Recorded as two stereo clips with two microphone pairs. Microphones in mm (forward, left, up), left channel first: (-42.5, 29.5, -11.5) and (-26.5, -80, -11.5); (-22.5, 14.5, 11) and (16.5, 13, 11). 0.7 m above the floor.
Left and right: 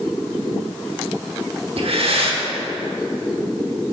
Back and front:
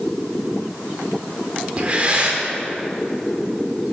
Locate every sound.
1.8 s breathing: 60° right, 1.1 m